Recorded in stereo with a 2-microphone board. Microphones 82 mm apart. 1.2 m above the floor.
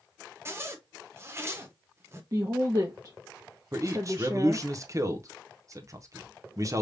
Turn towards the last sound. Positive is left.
turn(degrees=-40)  # may be behind; listen again after turning